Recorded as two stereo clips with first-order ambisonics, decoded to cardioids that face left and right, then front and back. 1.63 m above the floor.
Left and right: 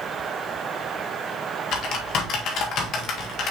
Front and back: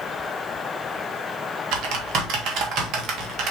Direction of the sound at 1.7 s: 140° left.